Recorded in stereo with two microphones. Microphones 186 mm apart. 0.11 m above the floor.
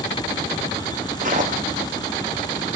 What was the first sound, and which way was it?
Footsteps, 45° right (ahead or behind).